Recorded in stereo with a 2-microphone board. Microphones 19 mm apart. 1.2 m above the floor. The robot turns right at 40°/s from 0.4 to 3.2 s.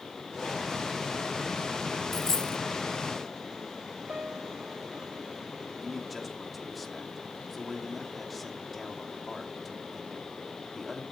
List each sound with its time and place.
2.1 s a dropped coin: 20° left (ahead or behind), 1.3 m; by 2.6 s 35° left (ahead or behind), 1.3 m
4.1 s a piano: 90° right, 5.5 m
5.8 s a man speaking: centre (ahead or behind), 2.5 m